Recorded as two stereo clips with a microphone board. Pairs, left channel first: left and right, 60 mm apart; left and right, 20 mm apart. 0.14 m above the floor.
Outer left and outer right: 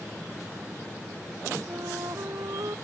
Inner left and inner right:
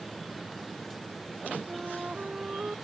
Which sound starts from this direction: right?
A flute, at 1.7 s.